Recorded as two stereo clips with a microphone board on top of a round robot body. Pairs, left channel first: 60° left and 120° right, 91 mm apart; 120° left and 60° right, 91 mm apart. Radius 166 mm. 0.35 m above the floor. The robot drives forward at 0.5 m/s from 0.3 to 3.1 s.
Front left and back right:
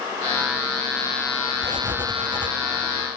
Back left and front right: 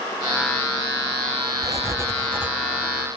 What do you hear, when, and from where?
1.6 s writing: 95° right, 0.9 m; by 2.5 s 130° right, 1.1 m